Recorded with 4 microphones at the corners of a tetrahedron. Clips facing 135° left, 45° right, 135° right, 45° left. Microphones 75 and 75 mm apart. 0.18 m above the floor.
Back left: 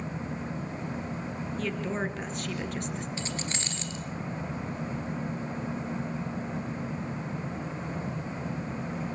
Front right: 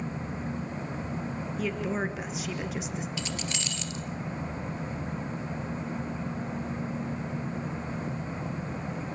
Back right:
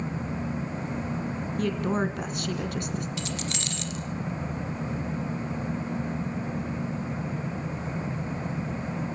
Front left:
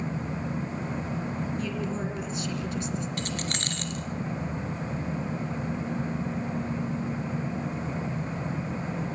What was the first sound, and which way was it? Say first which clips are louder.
A woman speaking: front right 1 dB, back right 4 dB; 130° right.